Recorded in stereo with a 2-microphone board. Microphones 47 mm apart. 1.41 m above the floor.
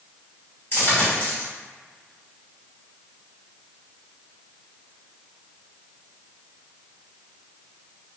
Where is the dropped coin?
45° left (ahead or behind), 1.5 m.